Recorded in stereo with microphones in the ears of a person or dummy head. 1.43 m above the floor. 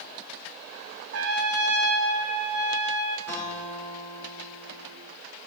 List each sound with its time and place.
1.1 s a trumpet: 65° right (ahead or behind), 1.3 m
3.3 s a guitar: 15° left (ahead or behind), 5.5 m